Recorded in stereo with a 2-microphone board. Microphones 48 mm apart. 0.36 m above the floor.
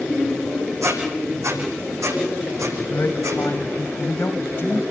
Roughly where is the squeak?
Right.